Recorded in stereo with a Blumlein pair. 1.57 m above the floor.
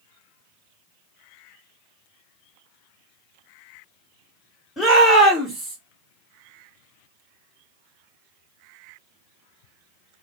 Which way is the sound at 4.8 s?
15° left.